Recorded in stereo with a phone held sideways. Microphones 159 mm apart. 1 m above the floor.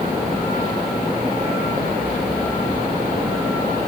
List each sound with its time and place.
Only background noise.